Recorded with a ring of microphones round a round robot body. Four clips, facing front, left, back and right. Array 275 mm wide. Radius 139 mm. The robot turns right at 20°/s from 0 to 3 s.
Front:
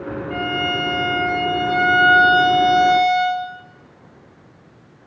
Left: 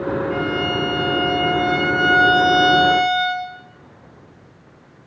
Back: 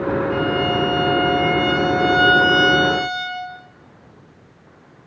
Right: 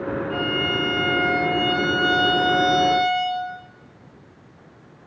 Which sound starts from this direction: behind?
A violin, at 0.3 s.